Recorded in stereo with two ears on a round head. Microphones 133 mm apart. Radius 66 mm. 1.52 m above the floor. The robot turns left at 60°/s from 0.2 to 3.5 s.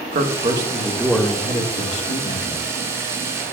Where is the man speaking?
125° right, 1.7 m; by 2.6 s 85° left, 1.7 m.